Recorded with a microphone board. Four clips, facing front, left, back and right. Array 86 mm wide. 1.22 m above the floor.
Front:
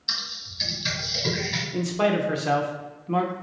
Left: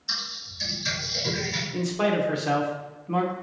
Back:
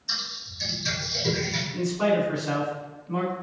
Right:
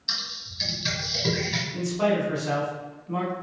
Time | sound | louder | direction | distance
0.1 | typing on a keyboard | left 1 dB, even | 40° right | 1.3 m
1.7 | a man speaking | even, even | 25° left | 0.8 m